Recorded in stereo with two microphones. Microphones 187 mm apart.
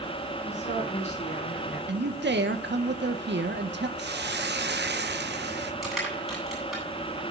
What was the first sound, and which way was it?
A woman speaking, 40° left (ahead or behind).